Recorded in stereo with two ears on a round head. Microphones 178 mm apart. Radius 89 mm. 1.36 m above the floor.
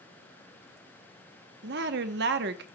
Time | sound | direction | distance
1.6 | a woman speaking | 55° right (ahead or behind) | 0.9 m